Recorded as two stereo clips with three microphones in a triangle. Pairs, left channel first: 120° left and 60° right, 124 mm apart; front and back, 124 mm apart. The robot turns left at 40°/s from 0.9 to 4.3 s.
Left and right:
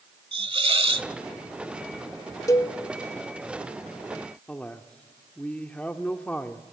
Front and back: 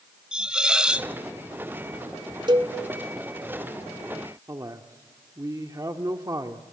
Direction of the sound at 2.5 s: 165° left.